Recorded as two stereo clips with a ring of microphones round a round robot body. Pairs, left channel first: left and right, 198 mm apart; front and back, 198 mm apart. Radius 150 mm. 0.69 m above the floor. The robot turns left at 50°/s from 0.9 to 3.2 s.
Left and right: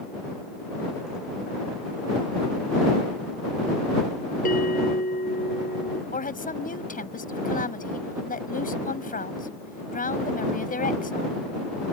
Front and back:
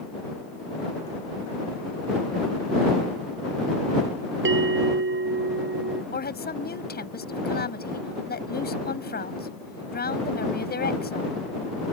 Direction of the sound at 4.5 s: 155° left.